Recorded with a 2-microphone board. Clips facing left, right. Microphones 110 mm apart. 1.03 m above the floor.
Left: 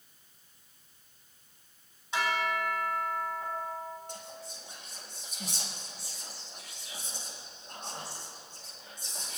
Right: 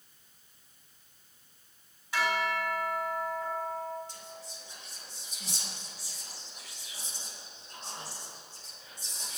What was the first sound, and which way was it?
A bell, 25° left (ahead or behind).